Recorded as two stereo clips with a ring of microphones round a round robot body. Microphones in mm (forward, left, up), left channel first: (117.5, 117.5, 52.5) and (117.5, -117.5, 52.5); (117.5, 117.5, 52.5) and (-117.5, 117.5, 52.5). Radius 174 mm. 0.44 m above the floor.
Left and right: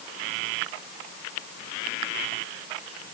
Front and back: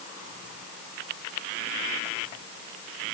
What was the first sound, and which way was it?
Only background noise.